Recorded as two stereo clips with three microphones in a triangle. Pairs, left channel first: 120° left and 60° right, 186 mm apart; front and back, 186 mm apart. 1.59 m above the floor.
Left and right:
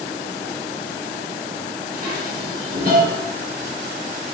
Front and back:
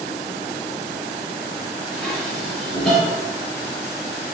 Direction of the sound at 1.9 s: 90° right.